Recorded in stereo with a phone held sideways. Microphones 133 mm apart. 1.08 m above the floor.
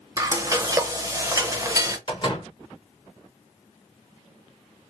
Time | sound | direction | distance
0.2 | frying | 25° right (ahead or behind) | 0.6 m
2.1 | a door slam | 35° left (ahead or behind) | 1.3 m